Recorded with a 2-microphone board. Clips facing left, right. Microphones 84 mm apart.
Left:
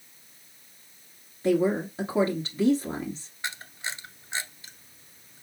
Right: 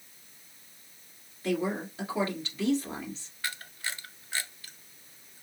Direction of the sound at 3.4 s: 20° left (ahead or behind).